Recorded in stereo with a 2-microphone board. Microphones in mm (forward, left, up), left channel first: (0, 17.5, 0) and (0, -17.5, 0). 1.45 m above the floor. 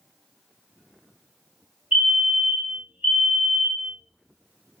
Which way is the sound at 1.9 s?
50° right (ahead or behind).